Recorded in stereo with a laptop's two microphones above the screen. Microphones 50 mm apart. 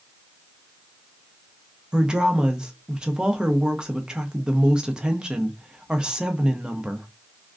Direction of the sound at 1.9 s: 15° right (ahead or behind).